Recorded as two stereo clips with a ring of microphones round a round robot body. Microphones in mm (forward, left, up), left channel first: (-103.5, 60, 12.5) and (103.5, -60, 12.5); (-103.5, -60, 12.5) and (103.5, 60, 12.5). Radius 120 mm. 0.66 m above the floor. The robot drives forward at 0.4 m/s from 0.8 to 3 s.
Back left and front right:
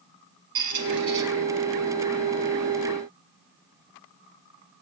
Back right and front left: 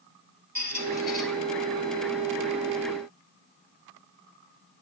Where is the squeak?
55° right, 1.3 m; by 1.2 s 60° right, 1.2 m.